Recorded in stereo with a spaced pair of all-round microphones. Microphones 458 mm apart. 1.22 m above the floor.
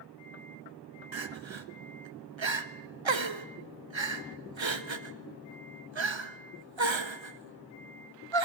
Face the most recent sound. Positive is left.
turn(degrees=-75)  # may be behind; listen again after turning